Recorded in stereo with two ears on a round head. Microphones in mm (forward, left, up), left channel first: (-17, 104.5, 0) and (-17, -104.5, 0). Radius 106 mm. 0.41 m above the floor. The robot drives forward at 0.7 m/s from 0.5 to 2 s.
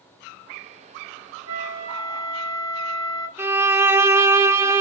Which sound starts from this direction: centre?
A violin, at 3.4 s.